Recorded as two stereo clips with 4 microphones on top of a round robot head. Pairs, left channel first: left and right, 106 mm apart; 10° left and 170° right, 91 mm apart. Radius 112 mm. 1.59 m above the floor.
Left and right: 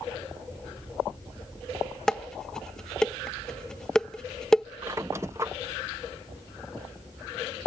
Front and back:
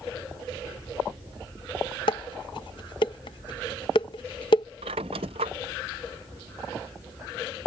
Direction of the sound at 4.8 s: 160° right.